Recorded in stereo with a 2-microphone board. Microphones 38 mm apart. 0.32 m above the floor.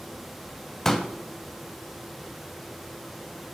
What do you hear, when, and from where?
0.8 s a pop: 10° left (ahead or behind), 0.6 m